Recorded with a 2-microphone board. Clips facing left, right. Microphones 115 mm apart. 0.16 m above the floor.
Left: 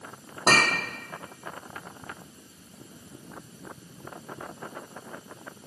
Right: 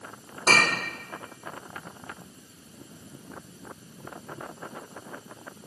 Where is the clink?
80° left, 3.5 m.